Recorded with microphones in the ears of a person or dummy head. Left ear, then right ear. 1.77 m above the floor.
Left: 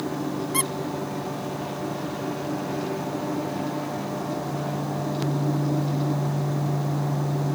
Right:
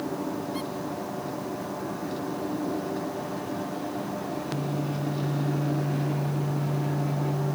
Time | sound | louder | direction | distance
0.5 | a squeak | left 6 dB | 55° left (ahead or behind) | ?